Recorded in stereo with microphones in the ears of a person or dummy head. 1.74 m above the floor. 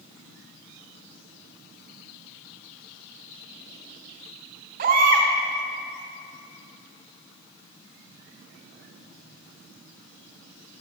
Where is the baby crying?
55° right (ahead or behind), 3.5 m.